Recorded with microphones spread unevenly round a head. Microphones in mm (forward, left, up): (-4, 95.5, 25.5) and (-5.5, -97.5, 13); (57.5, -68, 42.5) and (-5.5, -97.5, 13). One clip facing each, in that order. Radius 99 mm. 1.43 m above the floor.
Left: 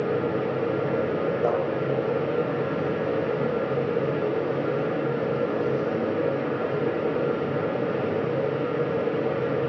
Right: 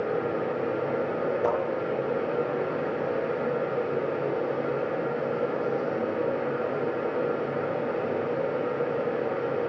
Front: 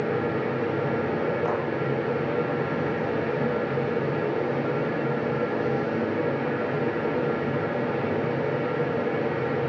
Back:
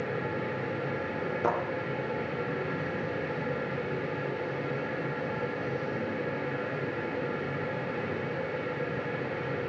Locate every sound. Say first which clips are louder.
0.0 s a fan: left 3 dB, front 7 dB; 45° left, 2 m
1.4 s a thud: left 2 dB, back 2 dB; 175° right, 6.5 m